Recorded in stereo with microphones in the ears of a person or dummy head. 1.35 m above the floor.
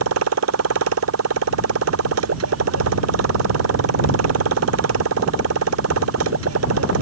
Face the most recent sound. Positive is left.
turn(degrees=-85)